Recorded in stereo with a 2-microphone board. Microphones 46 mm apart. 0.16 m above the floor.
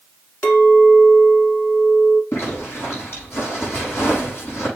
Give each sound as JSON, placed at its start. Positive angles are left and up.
{"t": 0.4, "sound": "a clink", "side_deg": 40, "distance_m": 1.5}
{"t": 2.3, "sound": "a zipper", "side_deg": 60, "distance_m": 5.5}